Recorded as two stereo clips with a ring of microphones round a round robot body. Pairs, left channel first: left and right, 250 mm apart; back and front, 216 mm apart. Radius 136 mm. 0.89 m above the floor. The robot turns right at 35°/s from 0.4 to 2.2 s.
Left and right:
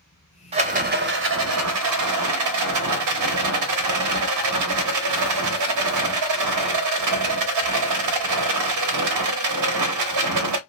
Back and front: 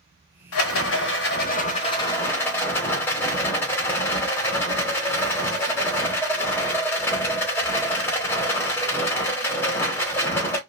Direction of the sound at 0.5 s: 155° right.